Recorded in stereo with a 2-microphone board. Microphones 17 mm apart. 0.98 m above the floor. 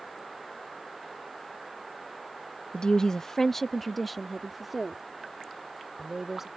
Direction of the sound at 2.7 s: 50° left (ahead or behind).